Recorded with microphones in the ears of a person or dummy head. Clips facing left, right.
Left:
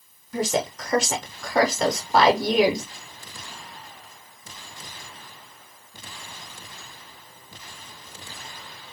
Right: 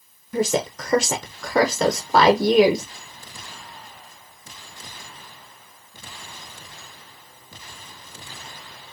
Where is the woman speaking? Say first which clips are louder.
Right 3 dB; 75° right (ahead or behind), 0.7 m.